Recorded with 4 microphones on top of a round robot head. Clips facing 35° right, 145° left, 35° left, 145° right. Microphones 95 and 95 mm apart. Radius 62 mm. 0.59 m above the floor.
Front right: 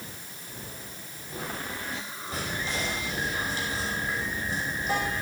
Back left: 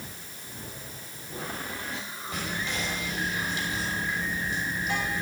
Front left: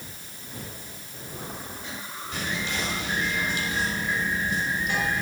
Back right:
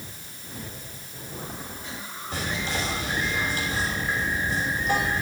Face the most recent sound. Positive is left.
turn(degrees=-90)